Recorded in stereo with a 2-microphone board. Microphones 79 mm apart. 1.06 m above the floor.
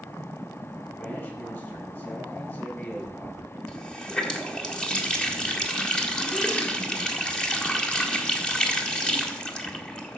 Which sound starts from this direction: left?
A man speaking, at 1.0 s.